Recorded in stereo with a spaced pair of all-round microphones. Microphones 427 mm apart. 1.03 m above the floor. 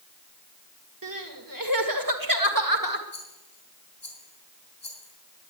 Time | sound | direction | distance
1.0 | crying | 50° right (ahead or behind) | 1.6 m
3.1 | a rattle | 75° left (ahead or behind) | 4.5 m